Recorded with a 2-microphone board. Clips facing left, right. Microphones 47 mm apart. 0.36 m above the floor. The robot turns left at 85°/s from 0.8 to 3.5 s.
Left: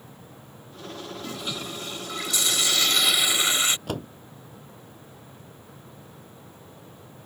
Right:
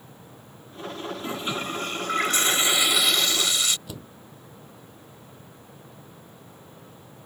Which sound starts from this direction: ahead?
A toilet flushing, at 1.2 s.